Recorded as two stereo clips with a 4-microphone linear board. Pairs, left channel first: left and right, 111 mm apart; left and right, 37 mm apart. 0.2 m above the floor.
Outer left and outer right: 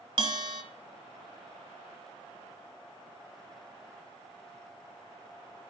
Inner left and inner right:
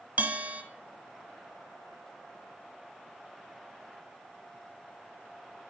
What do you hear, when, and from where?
0.2 s a bell: 45° right (ahead or behind), 1.0 m